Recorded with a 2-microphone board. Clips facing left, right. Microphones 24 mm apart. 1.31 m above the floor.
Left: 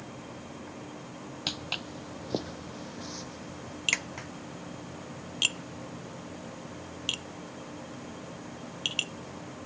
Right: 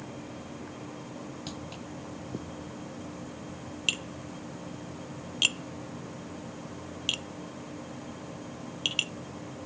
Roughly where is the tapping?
Centre.